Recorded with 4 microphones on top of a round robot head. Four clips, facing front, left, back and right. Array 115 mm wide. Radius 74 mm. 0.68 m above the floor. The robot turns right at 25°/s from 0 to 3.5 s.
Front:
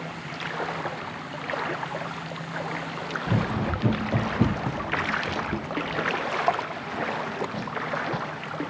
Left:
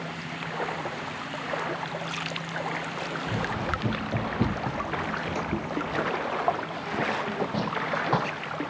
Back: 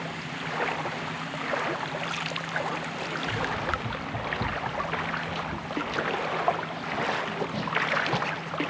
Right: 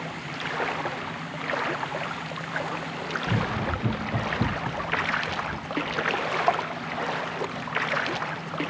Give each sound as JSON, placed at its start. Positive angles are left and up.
{"t": 3.3, "sound": "running footsteps", "azimuth_deg": -10}